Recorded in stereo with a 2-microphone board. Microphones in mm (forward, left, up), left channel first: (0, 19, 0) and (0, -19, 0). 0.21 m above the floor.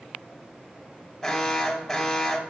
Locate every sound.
1.2 s an alarm: 5° left (ahead or behind), 1.3 m